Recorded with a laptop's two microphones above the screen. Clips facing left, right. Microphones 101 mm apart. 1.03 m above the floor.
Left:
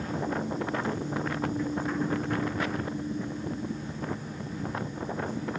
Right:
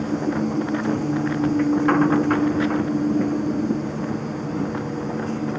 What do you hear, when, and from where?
0.0 s a machine running: 75° right (ahead or behind)